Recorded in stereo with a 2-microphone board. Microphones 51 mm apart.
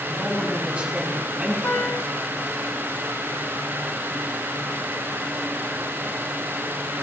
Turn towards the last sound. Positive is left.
turn(degrees=60)  # may be behind; listen again after turning